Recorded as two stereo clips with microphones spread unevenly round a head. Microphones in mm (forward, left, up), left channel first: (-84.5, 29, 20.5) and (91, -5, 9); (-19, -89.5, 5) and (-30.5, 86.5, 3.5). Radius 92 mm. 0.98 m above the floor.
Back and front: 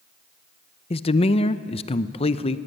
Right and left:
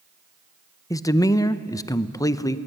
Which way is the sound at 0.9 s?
150° right.